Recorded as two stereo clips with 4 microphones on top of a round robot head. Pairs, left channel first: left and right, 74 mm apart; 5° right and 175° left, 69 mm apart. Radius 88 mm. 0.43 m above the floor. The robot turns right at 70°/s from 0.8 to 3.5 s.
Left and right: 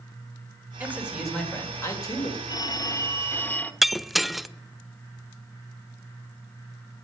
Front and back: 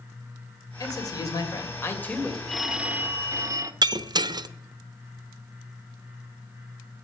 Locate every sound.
0.8 s a man speaking: 30° right, 2.5 m; by 2.4 s 80° left, 2.5 m
2.5 s a phone ringing: 85° left, 1.0 m; by 3.7 s 155° left, 1.0 m
3.8 s breaking glass: straight behind, 0.5 m